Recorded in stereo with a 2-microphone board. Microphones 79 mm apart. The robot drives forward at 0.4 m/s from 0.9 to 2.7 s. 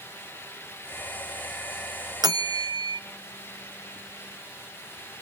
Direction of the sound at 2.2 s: 55° right (ahead or behind).